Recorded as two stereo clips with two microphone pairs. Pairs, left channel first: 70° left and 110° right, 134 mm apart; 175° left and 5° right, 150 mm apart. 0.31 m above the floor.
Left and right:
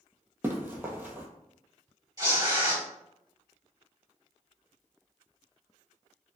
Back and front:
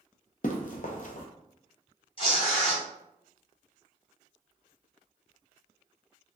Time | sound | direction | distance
0.4 | running footsteps | 175° right | 0.5 m
2.2 | tearing paper | 155° right | 1.9 m